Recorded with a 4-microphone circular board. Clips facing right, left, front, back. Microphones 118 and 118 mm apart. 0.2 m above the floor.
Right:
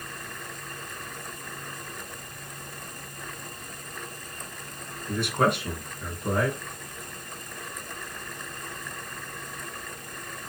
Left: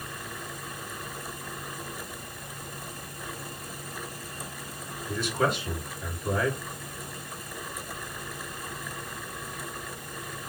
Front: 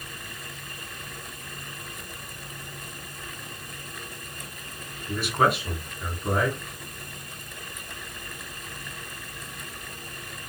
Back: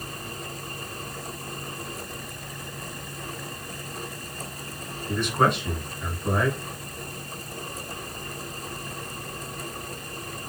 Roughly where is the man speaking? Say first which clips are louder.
Right 3 dB, back 1 dB; right.